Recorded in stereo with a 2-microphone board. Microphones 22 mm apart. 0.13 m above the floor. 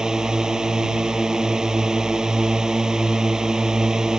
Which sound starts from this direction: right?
A drone, at 0.0 s.